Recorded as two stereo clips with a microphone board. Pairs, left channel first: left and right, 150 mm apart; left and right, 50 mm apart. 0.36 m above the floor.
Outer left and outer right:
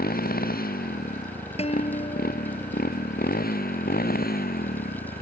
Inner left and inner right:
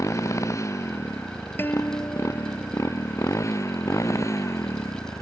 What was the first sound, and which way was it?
A motorcycle, 90° left.